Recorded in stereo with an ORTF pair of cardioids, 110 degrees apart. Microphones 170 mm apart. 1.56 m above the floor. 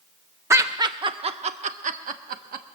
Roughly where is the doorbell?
No doorbell in this recording.